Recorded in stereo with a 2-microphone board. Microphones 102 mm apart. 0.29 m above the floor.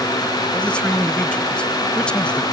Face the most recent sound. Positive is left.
turn(degrees=10)  # may be behind; listen again after turning